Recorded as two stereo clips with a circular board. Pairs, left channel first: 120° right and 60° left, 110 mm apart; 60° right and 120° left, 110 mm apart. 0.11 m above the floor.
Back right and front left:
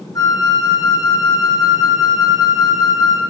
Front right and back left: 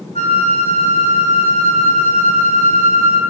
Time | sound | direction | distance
0.1 | a flute | 65° right | 1.4 m